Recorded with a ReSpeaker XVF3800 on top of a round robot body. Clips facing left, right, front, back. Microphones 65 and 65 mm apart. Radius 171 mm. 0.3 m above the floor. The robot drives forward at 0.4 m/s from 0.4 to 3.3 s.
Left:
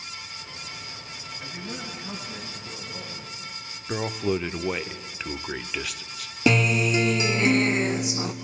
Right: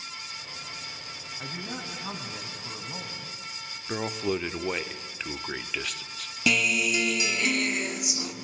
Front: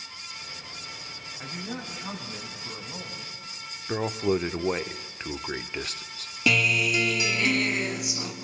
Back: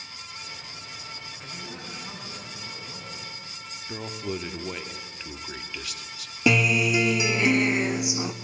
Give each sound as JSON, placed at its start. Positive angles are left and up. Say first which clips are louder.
{"t": 1.4, "sound": "a man speaking", "louder": "even, front 7 dB", "azimuth_deg": -60, "distance_m": 5.5}
{"t": 3.9, "sound": "a man speaking", "louder": "left 3 dB, front 8 dB", "azimuth_deg": 5, "distance_m": 1.0}
{"t": 6.5, "sound": "a guitar", "louder": "left 4 dB, back 2 dB", "azimuth_deg": 125, "distance_m": 1.1}